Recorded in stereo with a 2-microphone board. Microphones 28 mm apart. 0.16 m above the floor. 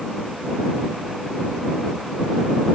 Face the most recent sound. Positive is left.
No sound to turn to.